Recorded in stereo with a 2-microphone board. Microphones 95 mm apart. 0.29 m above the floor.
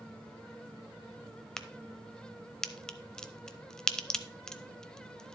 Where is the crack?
5° left (ahead or behind), 0.5 m.